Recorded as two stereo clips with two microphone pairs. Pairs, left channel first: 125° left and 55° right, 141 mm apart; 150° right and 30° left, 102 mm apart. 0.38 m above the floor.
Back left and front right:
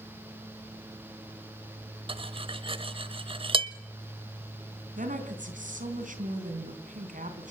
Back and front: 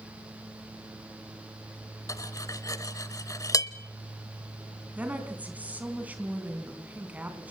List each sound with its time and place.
2.1 s cutlery clinking: 95° right, 0.9 m
5.0 s a woman speaking: 45° right, 3.5 m